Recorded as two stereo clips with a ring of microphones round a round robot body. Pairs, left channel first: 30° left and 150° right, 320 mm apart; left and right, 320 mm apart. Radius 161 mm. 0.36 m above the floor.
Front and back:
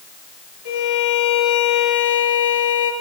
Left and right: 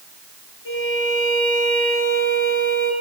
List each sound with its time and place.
0.7 s a violin: 35° left, 5.5 m